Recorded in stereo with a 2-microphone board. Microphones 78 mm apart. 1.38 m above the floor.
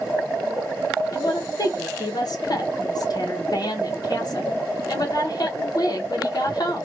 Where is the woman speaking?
60° left (ahead or behind), 0.6 m.